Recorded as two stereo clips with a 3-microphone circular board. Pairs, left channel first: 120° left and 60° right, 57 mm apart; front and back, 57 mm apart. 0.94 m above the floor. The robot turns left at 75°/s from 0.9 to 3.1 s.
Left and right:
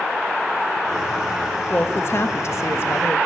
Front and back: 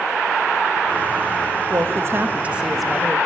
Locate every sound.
1.7 s a woman speaking: 175° left, 1.2 m; by 3.2 s 70° left, 1.2 m